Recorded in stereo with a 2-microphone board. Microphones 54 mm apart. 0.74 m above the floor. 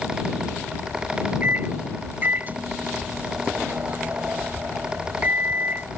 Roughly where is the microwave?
Right.